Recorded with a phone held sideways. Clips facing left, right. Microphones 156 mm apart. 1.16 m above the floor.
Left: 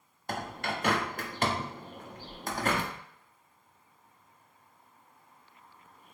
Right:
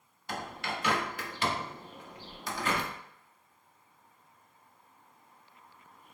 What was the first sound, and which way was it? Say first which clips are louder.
A bird: left 3 dB; 50° left (ahead or behind).